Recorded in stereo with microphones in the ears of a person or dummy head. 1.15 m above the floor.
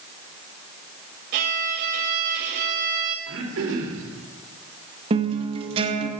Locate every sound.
1.3 s a violin: 55° right (ahead or behind), 2 m
3.3 s throat clearing: 75° right (ahead or behind), 3 m
5.1 s a guitar: 30° right (ahead or behind), 1.8 m